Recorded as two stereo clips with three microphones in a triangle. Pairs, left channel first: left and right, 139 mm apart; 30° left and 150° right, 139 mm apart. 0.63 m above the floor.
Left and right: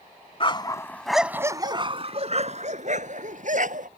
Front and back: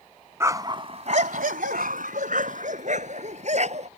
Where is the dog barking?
140° left; by 3.9 s 110° right.